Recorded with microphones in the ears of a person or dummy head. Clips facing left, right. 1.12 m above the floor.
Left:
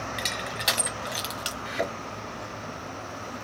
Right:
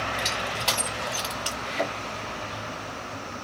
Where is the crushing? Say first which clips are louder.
Right 3 dB; 20° left (ahead or behind), 1.1 m.